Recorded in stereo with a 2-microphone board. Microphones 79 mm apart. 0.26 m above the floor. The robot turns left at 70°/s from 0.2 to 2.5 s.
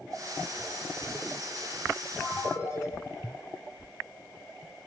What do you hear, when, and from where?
2.2 s a ringtone: 10° left (ahead or behind), 6 m; by 2.9 s 30° left (ahead or behind), 6 m